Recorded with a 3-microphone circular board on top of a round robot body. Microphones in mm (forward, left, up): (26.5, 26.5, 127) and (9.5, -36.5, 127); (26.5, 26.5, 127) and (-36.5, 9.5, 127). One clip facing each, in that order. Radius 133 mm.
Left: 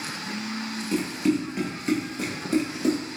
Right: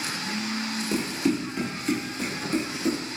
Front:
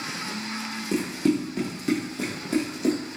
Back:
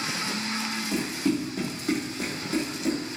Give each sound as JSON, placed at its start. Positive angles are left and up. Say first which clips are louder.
{"t": 0.9, "sound": "running footsteps", "louder": "left 2 dB, front 4 dB", "azimuth_deg": -35, "distance_m": 0.9}